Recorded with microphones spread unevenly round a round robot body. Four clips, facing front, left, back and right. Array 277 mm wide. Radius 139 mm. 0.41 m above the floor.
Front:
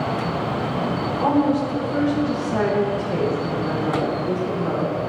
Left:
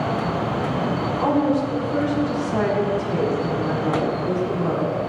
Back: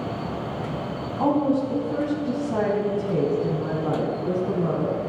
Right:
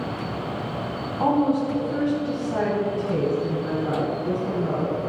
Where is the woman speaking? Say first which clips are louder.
Even, front 1 dB; 145° right, 4 m; by 5.0 s 175° right, 4.5 m.